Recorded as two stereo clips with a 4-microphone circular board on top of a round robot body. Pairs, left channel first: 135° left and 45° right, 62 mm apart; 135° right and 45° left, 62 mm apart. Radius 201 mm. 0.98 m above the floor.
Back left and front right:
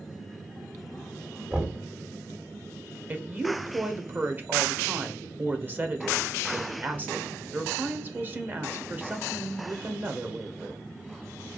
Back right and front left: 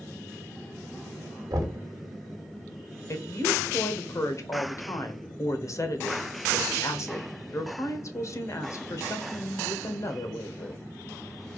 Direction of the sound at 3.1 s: 105° right.